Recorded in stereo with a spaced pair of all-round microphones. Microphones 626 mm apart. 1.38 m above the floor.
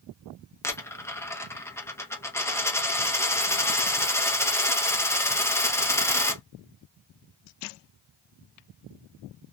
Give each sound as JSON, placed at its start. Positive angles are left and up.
{"t": 0.6, "sound": "a dropped coin", "side_deg": 5, "distance_m": 0.6}